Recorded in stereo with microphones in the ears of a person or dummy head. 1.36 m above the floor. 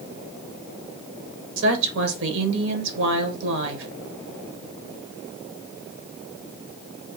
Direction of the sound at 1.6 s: 70° right (ahead or behind).